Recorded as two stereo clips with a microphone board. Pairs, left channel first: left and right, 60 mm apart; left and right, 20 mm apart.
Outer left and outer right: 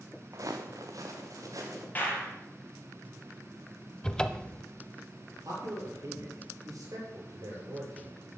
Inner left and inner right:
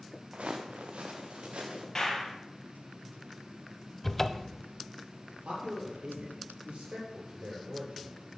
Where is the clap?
30° left (ahead or behind), 4 m.